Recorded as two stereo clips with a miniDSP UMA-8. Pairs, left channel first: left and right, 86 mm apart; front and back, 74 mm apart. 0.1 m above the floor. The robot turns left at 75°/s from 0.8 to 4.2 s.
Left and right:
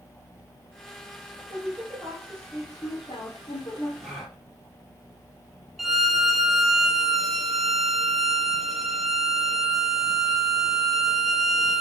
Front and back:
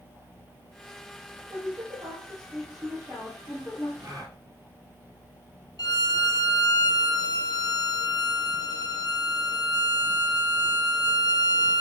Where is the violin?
Straight ahead, 1.0 m.